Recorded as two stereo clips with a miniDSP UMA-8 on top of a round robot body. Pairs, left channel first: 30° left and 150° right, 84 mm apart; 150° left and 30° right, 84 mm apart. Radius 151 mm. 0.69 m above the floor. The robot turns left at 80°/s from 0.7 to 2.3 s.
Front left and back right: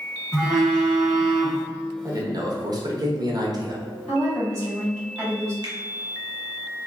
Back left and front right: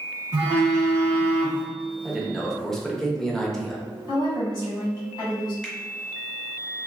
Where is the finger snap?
130° right, 1.5 m.